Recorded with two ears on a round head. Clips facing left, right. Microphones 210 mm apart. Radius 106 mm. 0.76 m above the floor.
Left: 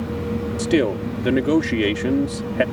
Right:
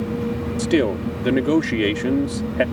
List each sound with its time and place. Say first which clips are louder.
0.6 s a man speaking: even; centre (ahead or behind)